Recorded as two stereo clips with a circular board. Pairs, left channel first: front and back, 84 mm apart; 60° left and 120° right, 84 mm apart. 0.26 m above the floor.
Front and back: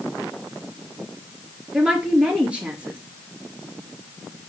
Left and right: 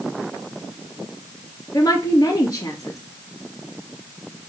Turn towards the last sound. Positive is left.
turn(degrees=105)